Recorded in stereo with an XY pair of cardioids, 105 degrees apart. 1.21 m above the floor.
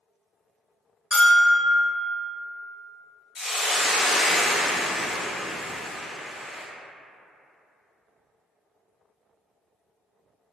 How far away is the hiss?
About 0.7 m.